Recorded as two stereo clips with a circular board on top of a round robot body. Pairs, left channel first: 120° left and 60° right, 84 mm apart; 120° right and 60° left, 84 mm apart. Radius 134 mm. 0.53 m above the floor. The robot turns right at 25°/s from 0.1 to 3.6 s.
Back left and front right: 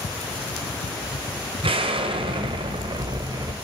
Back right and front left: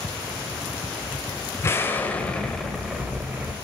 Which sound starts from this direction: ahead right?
An explosion, at 1.6 s.